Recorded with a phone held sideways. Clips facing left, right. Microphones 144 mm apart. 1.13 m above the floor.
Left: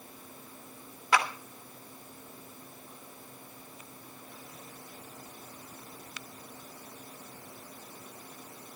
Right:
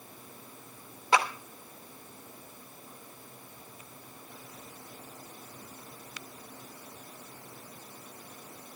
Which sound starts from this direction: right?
A clap, at 1.1 s.